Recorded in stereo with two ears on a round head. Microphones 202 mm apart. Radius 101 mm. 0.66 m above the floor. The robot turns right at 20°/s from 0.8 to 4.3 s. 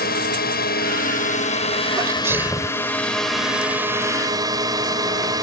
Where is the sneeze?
15° right (ahead or behind); by 2.9 s centre (ahead or behind).